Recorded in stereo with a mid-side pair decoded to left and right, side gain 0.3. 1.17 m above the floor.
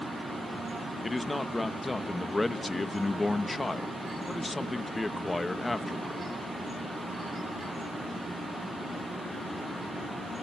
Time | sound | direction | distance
1.0 | a man speaking | 30° left | 1.6 m